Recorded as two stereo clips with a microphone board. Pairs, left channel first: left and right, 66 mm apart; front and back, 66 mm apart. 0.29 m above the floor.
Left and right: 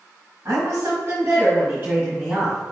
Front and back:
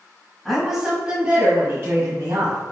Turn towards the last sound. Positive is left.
turn(degrees=-160)